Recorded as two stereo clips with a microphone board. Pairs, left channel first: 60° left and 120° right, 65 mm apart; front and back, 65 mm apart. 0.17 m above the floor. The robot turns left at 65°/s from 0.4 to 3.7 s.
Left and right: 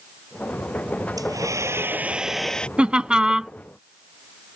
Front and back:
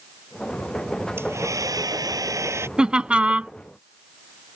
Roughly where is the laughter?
Behind right.